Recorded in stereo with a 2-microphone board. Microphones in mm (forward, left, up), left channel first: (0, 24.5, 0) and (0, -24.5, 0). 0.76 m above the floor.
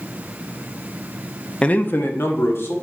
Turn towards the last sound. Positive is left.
turn(degrees=65)  # may be behind; listen again after turning